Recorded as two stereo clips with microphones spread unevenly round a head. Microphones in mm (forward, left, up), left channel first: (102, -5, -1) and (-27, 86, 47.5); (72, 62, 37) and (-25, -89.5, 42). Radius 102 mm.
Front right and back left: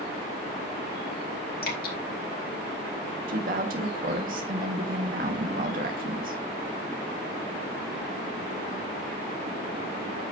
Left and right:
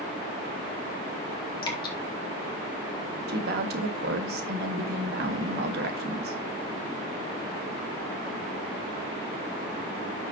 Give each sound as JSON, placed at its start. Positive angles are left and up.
{"t": 1.6, "sound": "dripping", "azimuth_deg": -10, "distance_m": 3.5}
{"t": 3.3, "sound": "a woman speaking", "azimuth_deg": -160, "distance_m": 1.8}